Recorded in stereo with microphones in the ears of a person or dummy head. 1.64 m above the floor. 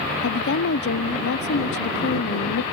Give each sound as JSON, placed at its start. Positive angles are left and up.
{"t": 0.2, "sound": "a woman speaking", "side_deg": 60}